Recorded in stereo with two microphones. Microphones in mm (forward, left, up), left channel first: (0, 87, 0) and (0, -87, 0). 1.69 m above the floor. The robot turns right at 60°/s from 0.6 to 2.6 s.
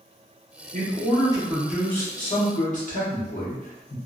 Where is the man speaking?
60° right, 1.1 m; by 4.0 s 50° left, 1.1 m.